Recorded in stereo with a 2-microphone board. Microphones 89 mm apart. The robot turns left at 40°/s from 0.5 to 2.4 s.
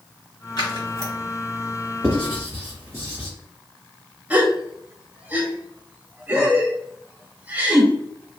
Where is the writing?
10° right (ahead or behind), 1.7 m; by 3.3 s 25° right (ahead or behind), 1.7 m.